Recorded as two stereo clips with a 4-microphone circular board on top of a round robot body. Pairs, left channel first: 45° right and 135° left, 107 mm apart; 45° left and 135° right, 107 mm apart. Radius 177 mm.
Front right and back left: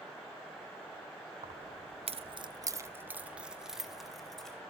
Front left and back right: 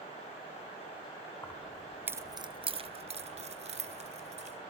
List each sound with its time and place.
1.4 s keys jangling: 115° left, 1.3 m; by 4.6 s 130° right, 3 m